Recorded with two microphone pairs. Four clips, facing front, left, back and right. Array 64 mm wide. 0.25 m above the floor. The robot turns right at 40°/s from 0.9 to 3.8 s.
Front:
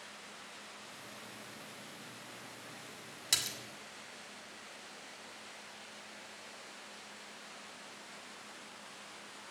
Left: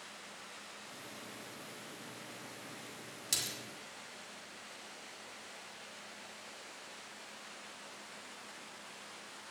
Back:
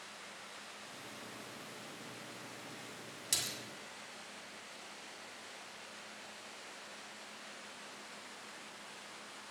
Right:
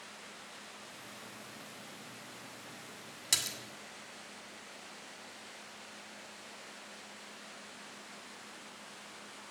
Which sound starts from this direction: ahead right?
A splash, at 3.3 s.